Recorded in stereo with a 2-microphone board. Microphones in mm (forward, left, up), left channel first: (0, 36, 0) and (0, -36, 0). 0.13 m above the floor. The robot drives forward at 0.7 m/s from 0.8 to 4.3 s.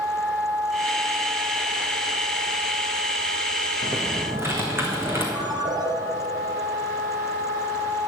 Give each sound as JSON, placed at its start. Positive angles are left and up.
{"t": 3.8, "sound": "typing on a keyboard", "side_deg": -35, "distance_m": 2.5}
{"t": 5.3, "sound": "a ringtone", "side_deg": -65, "distance_m": 1.8}